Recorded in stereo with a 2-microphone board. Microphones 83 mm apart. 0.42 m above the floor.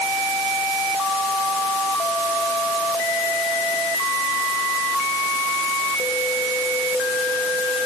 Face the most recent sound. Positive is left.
No sound to turn to.